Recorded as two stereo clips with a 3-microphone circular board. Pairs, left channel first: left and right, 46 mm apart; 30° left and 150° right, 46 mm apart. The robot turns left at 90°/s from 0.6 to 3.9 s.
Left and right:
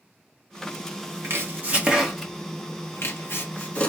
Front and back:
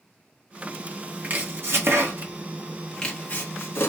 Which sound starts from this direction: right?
Chopping, at 1.2 s.